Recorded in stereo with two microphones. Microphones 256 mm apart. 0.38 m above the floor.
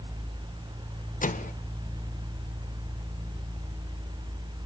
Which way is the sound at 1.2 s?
30° left (ahead or behind).